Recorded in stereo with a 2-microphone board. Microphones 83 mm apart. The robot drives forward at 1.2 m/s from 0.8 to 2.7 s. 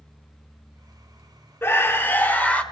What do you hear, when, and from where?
1.6 s a scream: 30° left (ahead or behind), 0.9 m; by 2.6 s 15° left (ahead or behind), 1.5 m